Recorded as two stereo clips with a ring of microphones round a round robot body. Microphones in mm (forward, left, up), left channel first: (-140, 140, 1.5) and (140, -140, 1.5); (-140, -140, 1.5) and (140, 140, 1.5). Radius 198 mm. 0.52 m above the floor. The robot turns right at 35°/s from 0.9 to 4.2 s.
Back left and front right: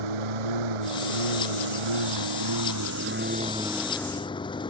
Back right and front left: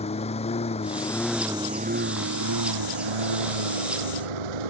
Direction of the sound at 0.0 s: 60° right.